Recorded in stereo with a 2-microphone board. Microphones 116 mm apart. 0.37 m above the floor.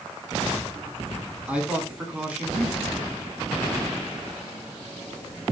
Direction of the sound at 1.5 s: 10° right (ahead or behind).